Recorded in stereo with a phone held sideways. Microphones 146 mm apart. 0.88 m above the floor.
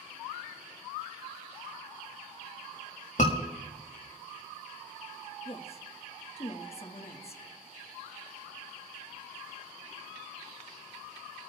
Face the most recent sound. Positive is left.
turn(degrees=45)  # may be behind; listen again after turning